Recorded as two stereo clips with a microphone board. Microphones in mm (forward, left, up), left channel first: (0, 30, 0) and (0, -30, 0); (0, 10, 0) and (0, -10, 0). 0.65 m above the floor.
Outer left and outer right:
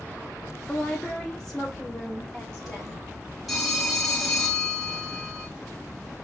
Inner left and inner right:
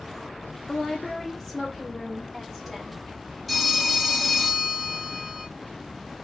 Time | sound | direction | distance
0.7 | a woman speaking | 10° left (ahead or behind) | 0.7 m
3.5 | a phone ringing | centre (ahead or behind) | 2.5 m